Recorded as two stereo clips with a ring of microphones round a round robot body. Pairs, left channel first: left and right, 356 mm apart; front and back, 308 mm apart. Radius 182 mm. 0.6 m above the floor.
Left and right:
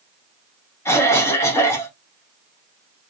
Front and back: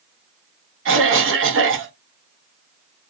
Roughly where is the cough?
Behind.